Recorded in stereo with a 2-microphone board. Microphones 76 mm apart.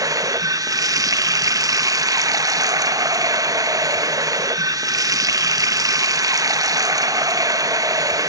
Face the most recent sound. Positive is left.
turn(degrees=-50)  # may be behind; listen again after turning